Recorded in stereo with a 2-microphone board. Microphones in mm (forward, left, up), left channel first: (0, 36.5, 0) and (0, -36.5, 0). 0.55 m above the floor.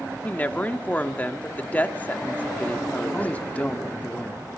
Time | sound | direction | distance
0.2 | a woman speaking | 20° left (ahead or behind) | 1.3 m
3.1 | a man speaking | 20° left (ahead or behind) | 1.5 m